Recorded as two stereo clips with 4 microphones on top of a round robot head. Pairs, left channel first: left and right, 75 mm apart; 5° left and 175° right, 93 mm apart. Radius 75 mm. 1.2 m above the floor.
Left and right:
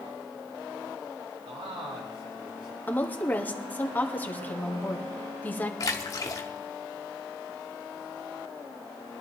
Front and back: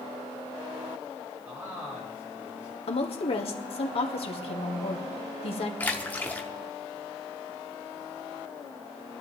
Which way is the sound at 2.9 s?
25° left.